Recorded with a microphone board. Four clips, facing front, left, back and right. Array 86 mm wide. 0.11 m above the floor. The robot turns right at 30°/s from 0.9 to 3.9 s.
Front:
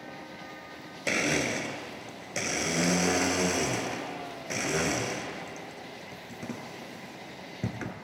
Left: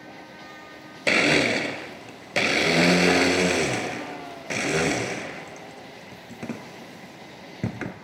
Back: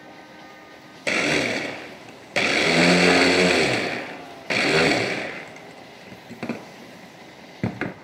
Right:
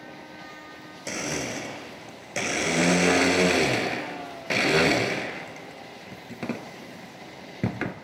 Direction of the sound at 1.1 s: 115° left.